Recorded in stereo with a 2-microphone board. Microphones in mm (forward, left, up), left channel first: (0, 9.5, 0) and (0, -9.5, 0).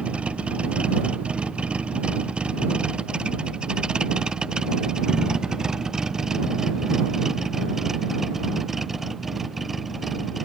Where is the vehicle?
80° right; by 10.4 s 5° right (ahead or behind).